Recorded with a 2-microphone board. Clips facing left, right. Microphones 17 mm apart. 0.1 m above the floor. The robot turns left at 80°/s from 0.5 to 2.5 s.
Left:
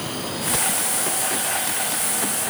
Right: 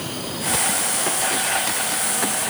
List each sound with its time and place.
Only background noise.